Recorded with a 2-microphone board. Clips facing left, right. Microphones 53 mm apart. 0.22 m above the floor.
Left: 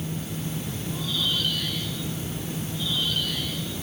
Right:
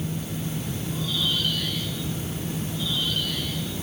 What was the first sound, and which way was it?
Only background noise.